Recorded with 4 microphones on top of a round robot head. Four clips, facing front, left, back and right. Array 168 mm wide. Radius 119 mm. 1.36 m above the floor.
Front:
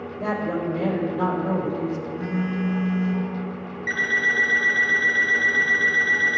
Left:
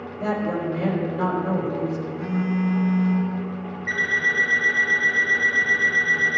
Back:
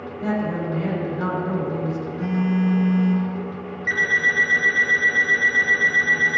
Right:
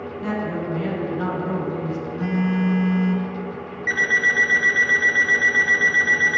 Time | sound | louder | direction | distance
0.2 | a woman speaking | left 2 dB, back 1 dB | 30° left | 4 m
2.2 | a phone buzzing | right 3 dB, back 7 dB | 90° right | 2 m
3.9 | an alarm clock | right 3 dB, back 2 dB | 70° right | 1.8 m